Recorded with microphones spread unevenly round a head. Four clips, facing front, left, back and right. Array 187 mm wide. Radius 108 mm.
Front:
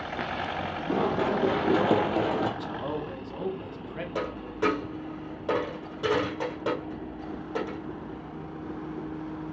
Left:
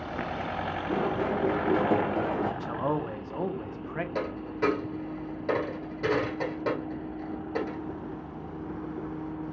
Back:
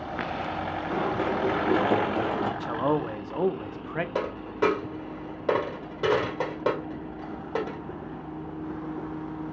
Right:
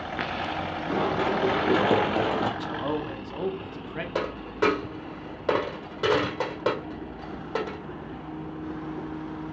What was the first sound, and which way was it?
Running footsteps, 35° right.